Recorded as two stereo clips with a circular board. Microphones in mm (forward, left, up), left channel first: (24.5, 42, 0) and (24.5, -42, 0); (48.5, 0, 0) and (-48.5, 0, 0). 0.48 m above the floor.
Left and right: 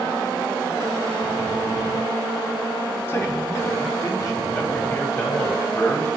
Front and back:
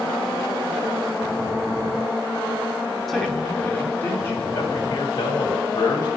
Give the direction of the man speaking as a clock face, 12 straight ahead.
9 o'clock.